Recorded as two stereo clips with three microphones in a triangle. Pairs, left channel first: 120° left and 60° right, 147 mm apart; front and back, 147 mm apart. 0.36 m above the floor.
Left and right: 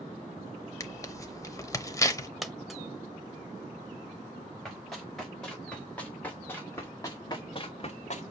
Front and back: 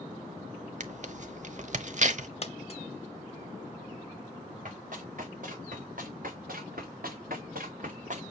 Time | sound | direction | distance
0.8 | tearing paper | straight behind | 0.7 m
2.4 | a dropped coin | 30° left | 0.8 m
4.7 | running footsteps | 150° right | 3.5 m